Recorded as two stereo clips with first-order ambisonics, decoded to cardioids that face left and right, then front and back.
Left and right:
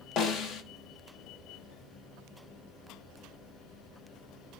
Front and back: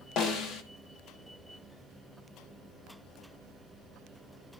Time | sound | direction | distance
0.2 | a snare drum | 45° left | 1.4 m